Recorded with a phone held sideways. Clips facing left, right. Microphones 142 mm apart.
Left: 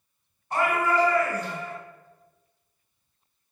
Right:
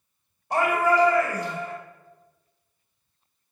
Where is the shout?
75° right (ahead or behind), 1.2 m.